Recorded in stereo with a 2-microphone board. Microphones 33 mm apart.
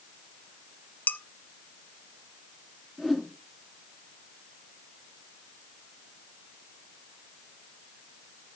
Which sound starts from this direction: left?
Dishes clattering, at 1.1 s.